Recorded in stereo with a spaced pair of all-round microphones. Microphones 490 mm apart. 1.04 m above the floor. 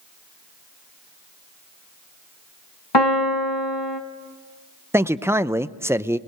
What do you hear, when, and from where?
2.9 s a piano: 55° left (ahead or behind), 2 m
4.9 s a man speaking: 5° right (ahead or behind), 0.5 m